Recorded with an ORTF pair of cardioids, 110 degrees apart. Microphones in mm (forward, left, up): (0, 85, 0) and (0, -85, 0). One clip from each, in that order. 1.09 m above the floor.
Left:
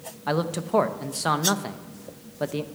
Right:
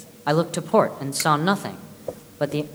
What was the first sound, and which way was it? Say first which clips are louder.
A man speaking: right 4 dB; 20° right.